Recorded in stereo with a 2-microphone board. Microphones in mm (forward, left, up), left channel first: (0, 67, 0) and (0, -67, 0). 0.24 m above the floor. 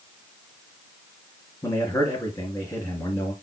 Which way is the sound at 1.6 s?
20° left (ahead or behind).